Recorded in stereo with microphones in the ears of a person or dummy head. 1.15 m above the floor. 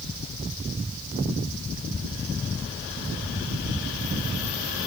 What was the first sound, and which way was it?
Only background noise.